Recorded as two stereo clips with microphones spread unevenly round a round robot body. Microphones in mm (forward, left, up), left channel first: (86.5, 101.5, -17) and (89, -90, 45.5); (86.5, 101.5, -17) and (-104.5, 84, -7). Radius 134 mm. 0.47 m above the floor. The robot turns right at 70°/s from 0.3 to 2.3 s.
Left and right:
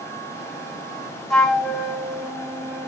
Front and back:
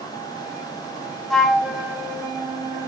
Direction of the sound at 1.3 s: 80° left.